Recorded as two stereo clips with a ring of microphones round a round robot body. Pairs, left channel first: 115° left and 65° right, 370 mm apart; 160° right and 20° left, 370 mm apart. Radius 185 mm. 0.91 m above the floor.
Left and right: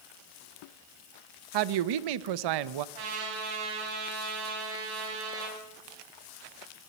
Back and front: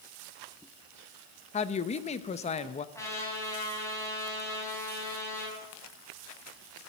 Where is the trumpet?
75° right, 5.5 m.